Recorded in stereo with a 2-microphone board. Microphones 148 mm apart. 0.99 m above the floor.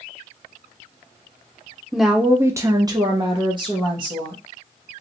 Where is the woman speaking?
Centre (ahead or behind), 0.6 m; by 4.4 s 30° right (ahead or behind), 1.4 m.